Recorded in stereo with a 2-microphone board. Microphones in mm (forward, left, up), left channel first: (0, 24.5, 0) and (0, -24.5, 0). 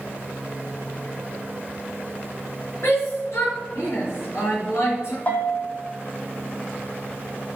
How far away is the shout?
About 4 m.